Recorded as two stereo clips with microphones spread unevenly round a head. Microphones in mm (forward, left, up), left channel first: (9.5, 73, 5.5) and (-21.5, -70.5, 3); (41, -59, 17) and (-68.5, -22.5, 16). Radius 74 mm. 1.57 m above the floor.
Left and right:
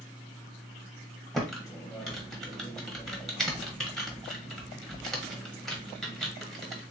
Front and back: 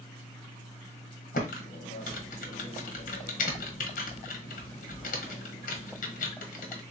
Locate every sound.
1.3 s typing on a keyboard: 10° right, 1.1 m